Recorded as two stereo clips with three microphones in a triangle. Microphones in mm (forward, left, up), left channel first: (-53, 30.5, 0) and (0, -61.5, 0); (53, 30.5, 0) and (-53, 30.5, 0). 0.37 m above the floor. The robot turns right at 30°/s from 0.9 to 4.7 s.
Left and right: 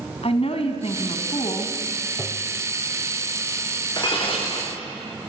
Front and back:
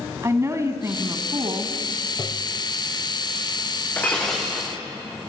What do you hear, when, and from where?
0.2 s a woman speaking: 120° left, 2.5 m; by 1.8 s 145° left, 2.5 m
2.2 s tapping: 40° left, 0.9 m; by 2.6 s 50° left, 0.9 m
4.0 s breaking glass: 75° left, 6 m; by 4.8 s 95° left, 6 m